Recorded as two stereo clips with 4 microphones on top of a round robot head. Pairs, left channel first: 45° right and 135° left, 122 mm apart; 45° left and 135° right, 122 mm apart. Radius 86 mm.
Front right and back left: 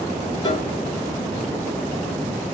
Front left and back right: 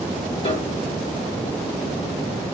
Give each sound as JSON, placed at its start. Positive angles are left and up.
{"t": 0.4, "sound": "a piano", "azimuth_deg": 10, "distance_m": 1.4}